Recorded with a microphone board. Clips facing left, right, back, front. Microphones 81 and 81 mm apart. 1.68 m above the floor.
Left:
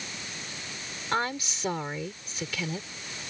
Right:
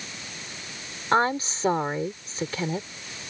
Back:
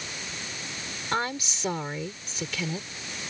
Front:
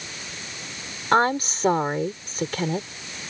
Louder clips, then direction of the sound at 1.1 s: Right 7 dB, front 10 dB; 40° right.